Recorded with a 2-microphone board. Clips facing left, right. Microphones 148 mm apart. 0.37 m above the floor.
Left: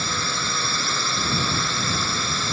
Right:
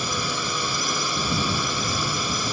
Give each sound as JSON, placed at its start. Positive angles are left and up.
{"t": 0.0, "sound": "a drone", "side_deg": -15}